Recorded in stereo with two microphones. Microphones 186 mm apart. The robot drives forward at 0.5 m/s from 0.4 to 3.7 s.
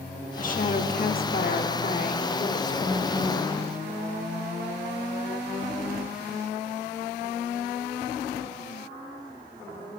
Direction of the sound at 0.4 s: 45° left (ahead or behind).